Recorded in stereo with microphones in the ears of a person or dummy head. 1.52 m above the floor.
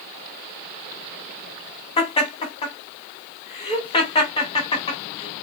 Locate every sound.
2.0 s laughter: 20° left (ahead or behind), 2.5 m